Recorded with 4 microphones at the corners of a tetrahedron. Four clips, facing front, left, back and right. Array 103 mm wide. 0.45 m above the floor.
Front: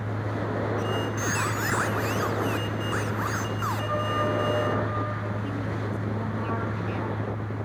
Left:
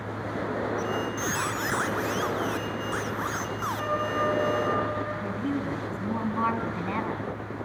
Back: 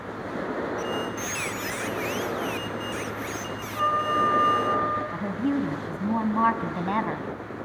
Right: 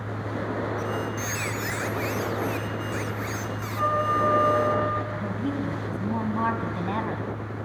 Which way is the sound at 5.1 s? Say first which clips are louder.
Right 1 dB, back 6 dB; 175° right.